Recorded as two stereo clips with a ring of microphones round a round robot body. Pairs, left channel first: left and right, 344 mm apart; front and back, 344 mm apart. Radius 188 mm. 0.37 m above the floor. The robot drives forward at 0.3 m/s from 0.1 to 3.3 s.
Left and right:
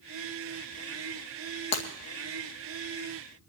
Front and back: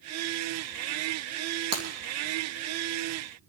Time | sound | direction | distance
1.7 | breaking glass | 125° left | 2.5 m